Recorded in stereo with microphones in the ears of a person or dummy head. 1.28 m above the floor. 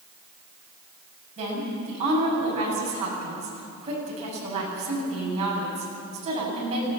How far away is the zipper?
I don't hear a zipper.